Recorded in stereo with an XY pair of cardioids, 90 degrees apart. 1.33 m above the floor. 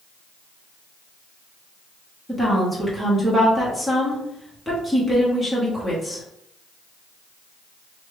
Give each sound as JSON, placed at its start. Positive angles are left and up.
{"t": 2.3, "sound": "a woman speaking", "azimuth_deg": -10, "distance_m": 1.4}